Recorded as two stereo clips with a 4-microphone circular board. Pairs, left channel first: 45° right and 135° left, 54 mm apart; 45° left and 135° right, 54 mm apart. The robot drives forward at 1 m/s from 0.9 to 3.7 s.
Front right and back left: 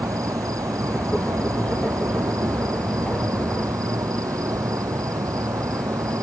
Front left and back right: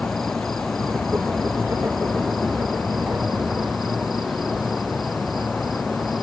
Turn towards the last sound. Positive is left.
turn(degrees=135)